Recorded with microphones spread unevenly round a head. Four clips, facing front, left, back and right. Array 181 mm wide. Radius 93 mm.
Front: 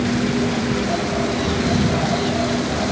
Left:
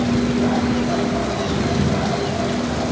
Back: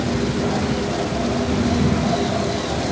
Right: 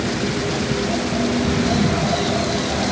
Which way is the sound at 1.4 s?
50° right.